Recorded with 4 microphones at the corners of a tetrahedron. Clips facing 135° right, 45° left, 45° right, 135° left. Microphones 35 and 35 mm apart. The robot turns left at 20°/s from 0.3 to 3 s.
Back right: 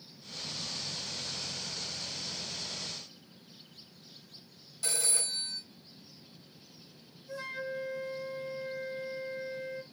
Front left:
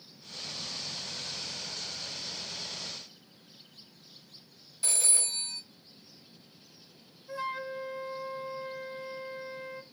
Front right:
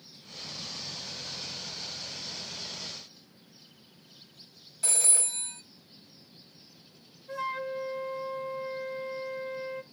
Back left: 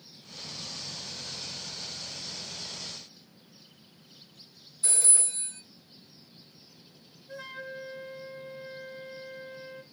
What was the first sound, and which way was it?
A phone ringing, 30° right.